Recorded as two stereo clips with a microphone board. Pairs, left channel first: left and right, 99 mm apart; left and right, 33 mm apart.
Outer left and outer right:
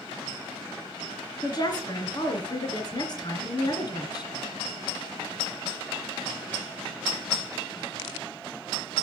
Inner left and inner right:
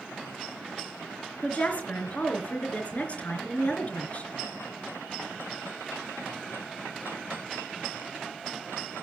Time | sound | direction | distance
1.4 | a woman speaking | 45° left (ahead or behind) | 3 m